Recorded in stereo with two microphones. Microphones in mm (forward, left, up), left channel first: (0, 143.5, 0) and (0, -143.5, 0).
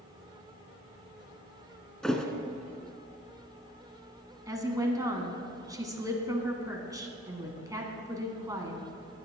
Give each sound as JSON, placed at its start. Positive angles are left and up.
{"t": 2.0, "sound": "a thud", "side_deg": 0, "distance_m": 1.1}
{"t": 4.5, "sound": "a woman speaking", "side_deg": -10, "distance_m": 1.6}